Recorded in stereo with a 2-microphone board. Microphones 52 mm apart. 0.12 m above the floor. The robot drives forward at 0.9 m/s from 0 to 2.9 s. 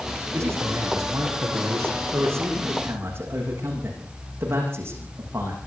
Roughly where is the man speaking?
Right.